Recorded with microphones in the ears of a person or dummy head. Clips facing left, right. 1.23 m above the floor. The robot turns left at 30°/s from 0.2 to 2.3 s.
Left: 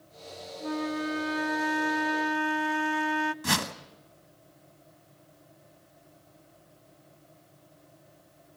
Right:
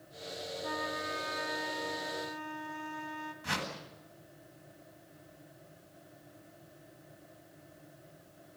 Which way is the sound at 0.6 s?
145° left.